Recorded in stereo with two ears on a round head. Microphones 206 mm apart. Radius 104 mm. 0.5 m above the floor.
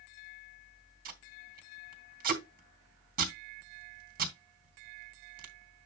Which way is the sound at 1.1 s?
40° right (ahead or behind).